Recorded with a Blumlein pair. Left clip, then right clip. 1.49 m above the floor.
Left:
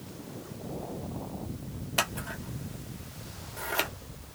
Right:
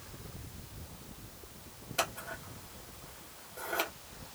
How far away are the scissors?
About 1.2 m.